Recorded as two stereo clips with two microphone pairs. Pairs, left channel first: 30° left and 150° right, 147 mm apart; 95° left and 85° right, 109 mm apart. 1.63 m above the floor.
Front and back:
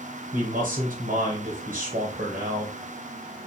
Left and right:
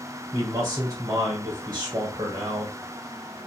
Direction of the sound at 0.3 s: 145° right.